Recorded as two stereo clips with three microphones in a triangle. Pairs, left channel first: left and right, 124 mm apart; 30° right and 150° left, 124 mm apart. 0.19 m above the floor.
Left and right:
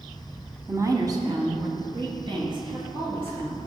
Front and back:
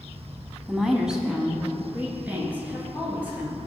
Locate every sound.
0.7 s a woman speaking: 120° right, 1.0 m; by 3.6 s 135° right, 3.5 m